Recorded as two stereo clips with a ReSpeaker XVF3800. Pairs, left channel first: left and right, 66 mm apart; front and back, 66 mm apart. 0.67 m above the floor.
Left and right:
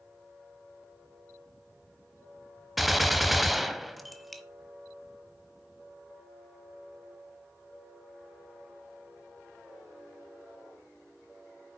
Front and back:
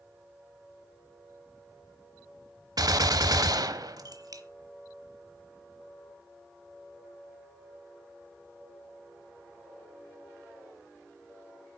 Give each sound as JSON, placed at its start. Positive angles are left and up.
{"t": 2.8, "sound": "a gunshot", "azimuth_deg": 180, "distance_m": 0.9}